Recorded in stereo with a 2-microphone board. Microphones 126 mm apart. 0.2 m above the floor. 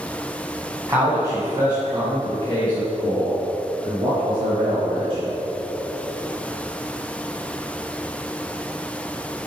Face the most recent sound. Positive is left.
turn(degrees=-45)  # may be behind; listen again after turning